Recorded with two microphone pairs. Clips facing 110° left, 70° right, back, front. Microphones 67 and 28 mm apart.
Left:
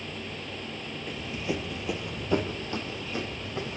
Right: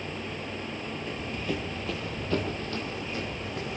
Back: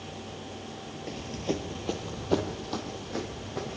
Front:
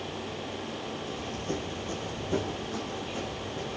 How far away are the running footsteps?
About 2 m.